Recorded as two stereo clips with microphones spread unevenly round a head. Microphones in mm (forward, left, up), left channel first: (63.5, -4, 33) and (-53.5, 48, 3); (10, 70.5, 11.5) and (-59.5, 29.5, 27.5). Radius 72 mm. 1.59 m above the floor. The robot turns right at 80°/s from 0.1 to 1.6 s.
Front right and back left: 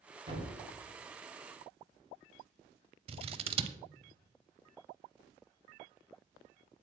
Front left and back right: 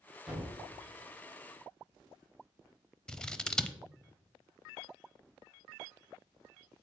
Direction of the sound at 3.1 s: 110° left.